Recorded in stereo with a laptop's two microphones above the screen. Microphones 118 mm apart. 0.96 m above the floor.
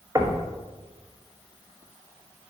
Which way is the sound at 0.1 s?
25° right (ahead or behind).